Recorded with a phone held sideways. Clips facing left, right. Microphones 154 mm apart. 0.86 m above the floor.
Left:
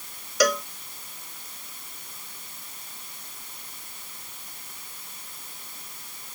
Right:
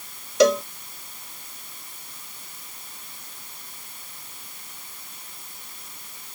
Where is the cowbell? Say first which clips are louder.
Right 6 dB; 25° right (ahead or behind).